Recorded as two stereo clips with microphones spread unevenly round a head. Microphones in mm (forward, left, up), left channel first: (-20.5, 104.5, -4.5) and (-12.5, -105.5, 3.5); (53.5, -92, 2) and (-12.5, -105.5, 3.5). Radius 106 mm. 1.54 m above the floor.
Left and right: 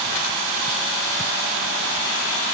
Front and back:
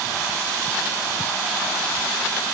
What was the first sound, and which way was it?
Only background noise.